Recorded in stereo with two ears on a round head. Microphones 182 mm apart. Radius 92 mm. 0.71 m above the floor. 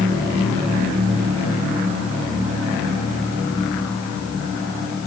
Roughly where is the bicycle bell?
No bicycle bell in this recording.